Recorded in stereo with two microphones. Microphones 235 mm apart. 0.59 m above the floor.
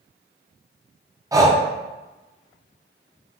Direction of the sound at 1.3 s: 15° right (ahead or behind).